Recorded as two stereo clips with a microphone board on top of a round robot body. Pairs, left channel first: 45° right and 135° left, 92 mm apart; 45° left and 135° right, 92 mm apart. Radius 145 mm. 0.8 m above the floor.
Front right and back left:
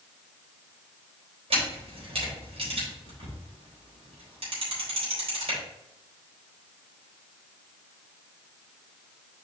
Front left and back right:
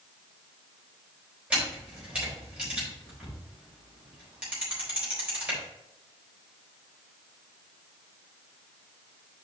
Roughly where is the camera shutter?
Behind left.